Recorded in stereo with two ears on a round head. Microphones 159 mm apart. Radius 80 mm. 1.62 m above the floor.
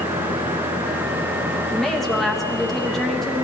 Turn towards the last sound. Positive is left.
turn(degrees=0)  # may be behind; listen again after turning